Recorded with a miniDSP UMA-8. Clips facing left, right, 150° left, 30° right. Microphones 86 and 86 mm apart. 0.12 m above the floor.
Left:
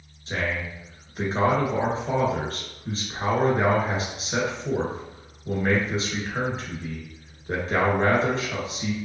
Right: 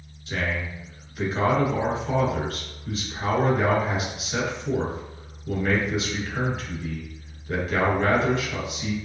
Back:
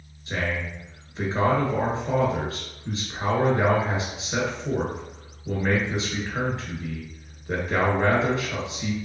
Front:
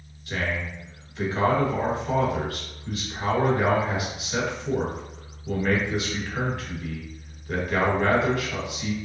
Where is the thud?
No thud in this recording.